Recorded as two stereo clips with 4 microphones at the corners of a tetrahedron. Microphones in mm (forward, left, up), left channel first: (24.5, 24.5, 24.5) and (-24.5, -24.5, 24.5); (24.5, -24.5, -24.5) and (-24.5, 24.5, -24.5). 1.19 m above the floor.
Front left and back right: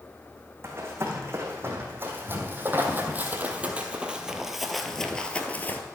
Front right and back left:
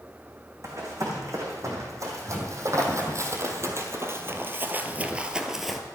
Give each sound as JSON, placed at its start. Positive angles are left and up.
{"t": 0.6, "sound": "running footsteps", "azimuth_deg": 175, "distance_m": 4.0}